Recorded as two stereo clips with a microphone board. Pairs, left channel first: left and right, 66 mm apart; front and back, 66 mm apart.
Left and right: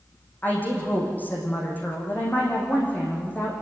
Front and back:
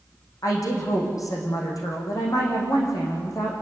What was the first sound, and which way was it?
A woman speaking, 25° left.